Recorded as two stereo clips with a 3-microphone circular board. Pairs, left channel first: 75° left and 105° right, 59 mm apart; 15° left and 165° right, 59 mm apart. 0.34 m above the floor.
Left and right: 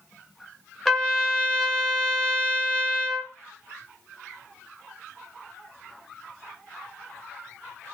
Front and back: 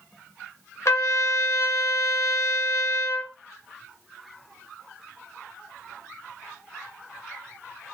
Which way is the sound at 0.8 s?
10° right.